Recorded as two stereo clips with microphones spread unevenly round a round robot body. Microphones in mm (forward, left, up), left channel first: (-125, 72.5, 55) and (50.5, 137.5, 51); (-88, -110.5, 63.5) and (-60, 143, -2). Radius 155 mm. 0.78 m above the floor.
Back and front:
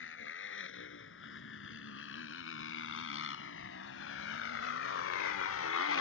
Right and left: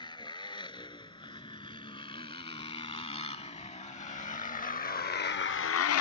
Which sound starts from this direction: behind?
A motorcycle, at 0.0 s.